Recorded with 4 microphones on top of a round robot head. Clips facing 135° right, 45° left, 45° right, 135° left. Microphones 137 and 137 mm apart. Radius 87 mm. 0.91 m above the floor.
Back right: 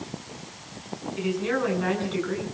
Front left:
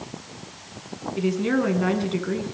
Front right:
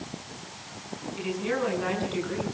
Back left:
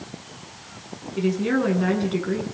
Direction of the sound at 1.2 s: 95° left.